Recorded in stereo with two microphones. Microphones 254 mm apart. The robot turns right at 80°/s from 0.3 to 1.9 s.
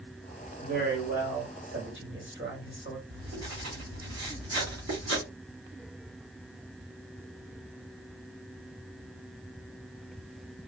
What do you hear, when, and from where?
0.6 s a man speaking: 155° right, 2.5 m; by 3.0 s 55° right, 2.5 m
3.1 s writing: 80° right, 3 m